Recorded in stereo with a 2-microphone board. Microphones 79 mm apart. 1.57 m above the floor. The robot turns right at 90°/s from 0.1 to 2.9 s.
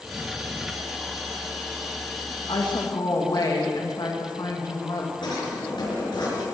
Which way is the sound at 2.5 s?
85° left.